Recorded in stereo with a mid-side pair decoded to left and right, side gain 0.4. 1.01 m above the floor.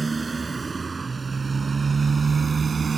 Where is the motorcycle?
30° right; by 3.0 s 40° right.